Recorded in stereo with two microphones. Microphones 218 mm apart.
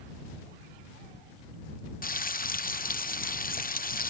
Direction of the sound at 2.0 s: 40° left (ahead or behind).